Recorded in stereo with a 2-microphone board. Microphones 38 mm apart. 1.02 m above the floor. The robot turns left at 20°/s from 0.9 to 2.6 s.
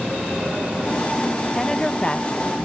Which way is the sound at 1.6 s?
10° left (ahead or behind).